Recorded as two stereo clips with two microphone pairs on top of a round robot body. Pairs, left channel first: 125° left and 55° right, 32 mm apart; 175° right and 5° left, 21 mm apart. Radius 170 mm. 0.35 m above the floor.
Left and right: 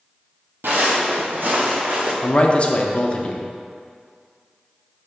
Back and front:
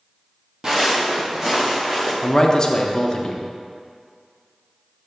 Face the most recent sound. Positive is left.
turn(degrees=155)